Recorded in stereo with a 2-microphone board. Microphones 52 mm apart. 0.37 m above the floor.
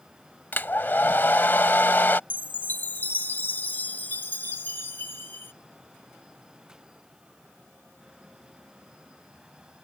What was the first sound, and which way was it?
A hair dryer, 40° left (ahead or behind).